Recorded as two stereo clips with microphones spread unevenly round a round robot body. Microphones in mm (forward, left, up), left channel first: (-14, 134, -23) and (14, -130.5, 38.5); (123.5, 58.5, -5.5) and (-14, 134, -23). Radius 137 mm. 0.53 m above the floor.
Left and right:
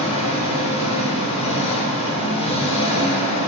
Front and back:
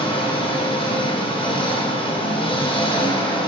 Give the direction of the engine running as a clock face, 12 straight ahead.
11 o'clock.